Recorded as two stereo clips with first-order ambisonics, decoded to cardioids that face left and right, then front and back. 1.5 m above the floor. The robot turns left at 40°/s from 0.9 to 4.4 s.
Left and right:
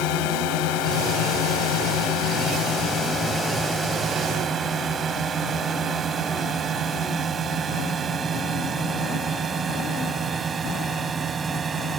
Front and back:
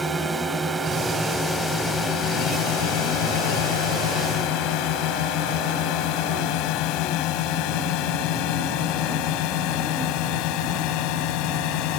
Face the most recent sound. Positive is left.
turn(degrees=-20)